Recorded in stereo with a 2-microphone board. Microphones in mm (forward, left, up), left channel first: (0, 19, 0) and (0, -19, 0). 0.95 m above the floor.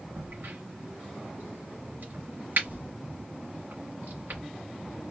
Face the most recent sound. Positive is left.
turn(degrees=-60)  # may be behind; listen again after turning